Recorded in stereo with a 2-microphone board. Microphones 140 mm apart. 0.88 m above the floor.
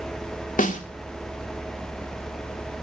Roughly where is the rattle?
No rattle in this recording.